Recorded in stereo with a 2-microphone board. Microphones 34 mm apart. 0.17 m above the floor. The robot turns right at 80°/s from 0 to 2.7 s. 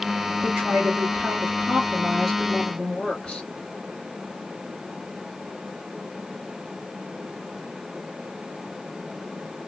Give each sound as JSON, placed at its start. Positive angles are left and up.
{"t": 0.4, "sound": "a woman speaking", "azimuth_deg": -155, "distance_m": 3.0}